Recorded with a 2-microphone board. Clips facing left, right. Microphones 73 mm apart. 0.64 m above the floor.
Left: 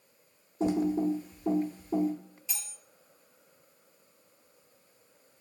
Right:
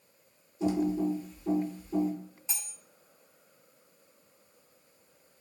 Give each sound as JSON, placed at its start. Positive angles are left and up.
{"t": 0.6, "sound": "typing on a keyboard", "side_deg": 55, "distance_m": 0.7}
{"t": 2.5, "sound": "cutlery clinking", "side_deg": -30, "distance_m": 0.6}